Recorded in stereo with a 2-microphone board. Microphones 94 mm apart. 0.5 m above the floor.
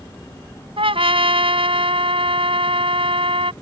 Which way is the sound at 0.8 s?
75° right (ahead or behind).